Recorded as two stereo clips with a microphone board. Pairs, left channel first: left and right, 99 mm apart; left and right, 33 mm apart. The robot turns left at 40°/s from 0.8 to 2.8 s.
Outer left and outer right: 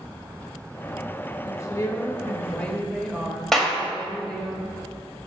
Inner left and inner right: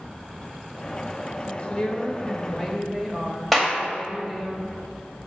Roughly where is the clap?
Centre.